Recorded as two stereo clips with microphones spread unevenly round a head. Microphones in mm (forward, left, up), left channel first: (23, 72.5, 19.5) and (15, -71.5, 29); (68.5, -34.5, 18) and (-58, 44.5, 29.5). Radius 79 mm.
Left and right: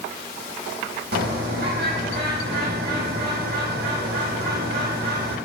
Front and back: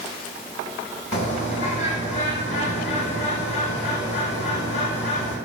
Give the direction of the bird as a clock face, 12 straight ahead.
3 o'clock.